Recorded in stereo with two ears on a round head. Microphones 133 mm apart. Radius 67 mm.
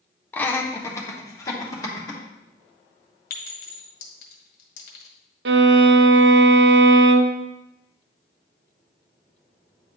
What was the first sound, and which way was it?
Laughter, 10° left (ahead or behind).